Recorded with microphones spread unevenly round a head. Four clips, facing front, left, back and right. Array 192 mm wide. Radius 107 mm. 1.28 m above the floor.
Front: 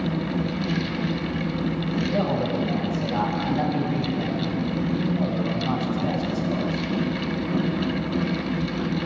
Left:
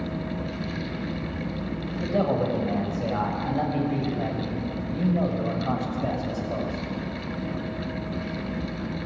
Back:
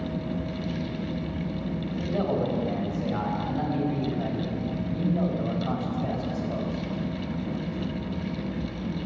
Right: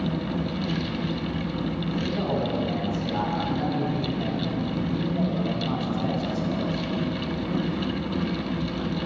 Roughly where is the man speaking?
Left.